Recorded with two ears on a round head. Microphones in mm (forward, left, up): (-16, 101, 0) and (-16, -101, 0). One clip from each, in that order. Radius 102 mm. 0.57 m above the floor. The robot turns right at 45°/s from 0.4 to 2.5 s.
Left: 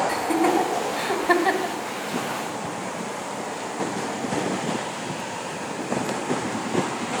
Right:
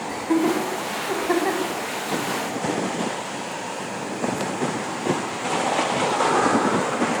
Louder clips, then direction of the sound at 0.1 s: Left 1 dB; 30° left (ahead or behind).